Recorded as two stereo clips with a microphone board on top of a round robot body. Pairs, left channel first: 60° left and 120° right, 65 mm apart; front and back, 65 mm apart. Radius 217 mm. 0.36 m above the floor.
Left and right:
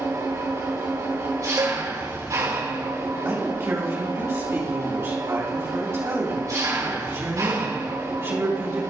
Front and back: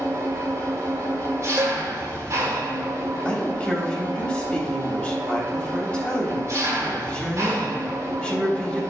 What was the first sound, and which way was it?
An engine running, 140° right.